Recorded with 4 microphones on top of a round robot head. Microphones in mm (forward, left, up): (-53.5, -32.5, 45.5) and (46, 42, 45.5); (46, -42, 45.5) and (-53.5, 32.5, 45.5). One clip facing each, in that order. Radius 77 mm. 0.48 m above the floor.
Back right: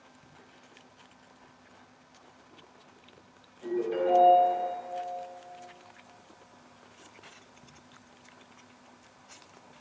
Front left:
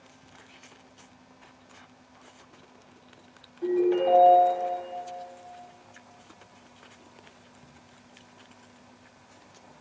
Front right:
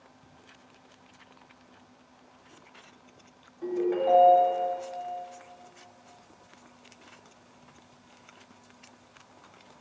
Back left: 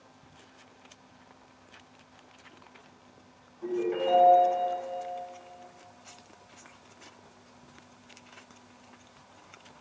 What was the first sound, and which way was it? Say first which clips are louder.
A ringtone: front left 6 dB, front right 2 dB; straight ahead.